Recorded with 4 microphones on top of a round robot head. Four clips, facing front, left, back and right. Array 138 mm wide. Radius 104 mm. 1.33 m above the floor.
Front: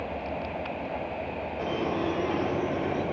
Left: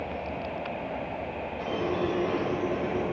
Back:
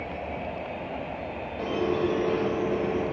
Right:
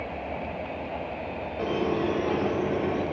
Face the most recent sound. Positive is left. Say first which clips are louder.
# right 3 dB, back 3 dB
turn(degrees=-105)